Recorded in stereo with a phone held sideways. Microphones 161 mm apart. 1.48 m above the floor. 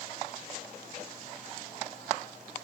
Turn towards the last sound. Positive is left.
No sound to turn to.